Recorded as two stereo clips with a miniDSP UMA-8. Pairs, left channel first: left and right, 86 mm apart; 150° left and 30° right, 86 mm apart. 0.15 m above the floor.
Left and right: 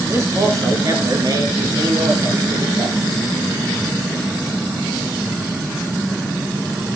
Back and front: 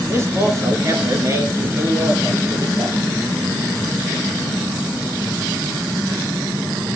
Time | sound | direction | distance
0.1 | a man speaking | 60° right | 2 m